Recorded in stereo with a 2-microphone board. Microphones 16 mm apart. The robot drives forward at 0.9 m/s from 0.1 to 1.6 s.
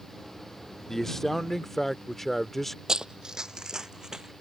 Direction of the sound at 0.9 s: 25° left (ahead or behind).